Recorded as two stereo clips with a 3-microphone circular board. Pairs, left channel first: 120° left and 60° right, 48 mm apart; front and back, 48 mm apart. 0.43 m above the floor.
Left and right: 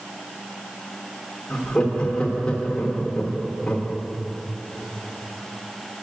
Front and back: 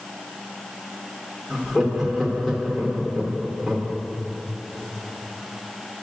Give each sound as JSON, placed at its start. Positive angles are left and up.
{"t": 1.5, "sound": "laughter", "azimuth_deg": 100, "distance_m": 0.9}